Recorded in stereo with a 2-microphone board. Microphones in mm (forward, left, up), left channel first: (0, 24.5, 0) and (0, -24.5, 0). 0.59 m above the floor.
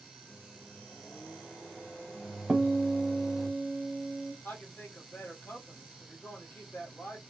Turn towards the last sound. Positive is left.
turn(degrees=45)  # may be behind; listen again after turning